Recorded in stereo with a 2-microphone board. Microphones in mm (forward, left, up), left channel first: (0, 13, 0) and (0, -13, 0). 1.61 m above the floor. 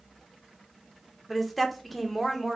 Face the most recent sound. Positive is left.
turn(degrees=0)  # may be behind; listen again after turning